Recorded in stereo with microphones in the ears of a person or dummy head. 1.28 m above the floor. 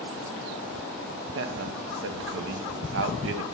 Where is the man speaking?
60° right (ahead or behind), 0.6 m.